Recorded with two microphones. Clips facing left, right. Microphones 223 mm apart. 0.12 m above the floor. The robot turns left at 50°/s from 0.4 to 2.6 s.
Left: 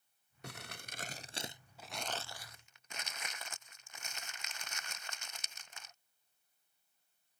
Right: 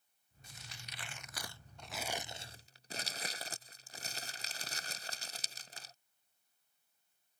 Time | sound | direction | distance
0.4 | crumpling | 75° left (ahead or behind) | ?